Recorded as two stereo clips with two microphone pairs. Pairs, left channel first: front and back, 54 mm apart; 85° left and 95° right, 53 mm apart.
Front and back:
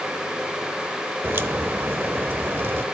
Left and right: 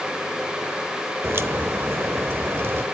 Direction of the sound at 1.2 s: 135° right.